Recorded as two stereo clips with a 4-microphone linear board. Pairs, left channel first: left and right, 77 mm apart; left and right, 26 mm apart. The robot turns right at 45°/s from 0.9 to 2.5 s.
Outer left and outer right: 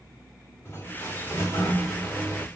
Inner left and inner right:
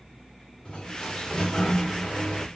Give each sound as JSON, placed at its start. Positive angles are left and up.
{"t": 0.7, "sound": "a sliding door", "azimuth_deg": 80, "distance_m": 1.2}